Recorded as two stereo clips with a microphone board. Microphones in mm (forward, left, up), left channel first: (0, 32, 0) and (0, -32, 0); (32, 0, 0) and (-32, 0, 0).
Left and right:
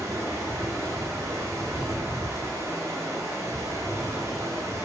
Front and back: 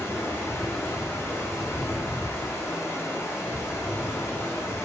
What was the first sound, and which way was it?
Running water, 50° right.